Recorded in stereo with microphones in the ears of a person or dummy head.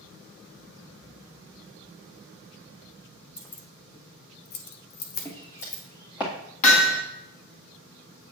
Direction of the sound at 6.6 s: 40° left (ahead or behind).